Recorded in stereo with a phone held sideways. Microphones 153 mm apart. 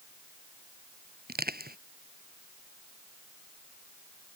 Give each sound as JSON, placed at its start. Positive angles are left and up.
{"t": 1.3, "sound": "crushing", "side_deg": -90}